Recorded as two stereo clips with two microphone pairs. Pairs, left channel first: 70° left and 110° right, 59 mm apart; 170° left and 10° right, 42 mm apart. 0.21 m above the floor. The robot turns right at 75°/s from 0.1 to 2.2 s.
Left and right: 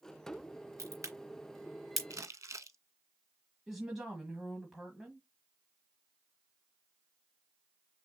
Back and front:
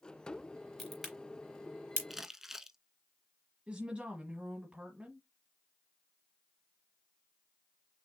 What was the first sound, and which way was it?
A crack, 110° right.